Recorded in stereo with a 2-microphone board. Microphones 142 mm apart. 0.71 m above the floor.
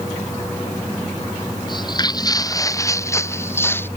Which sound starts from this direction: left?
Footsteps, at 1.7 s.